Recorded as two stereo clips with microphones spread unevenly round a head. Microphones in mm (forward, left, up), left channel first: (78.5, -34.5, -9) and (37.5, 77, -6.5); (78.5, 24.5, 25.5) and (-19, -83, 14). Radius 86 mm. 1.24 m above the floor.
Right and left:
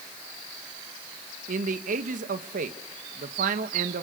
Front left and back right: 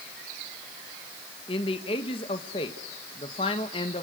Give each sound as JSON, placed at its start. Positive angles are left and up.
{"t": 1.5, "sound": "a man speaking", "azimuth_deg": 110, "distance_m": 1.8}